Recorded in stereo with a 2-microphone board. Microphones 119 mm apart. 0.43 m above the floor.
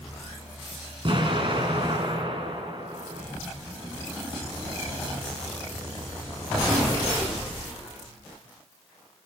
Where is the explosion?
45° right (ahead or behind), 4.5 m.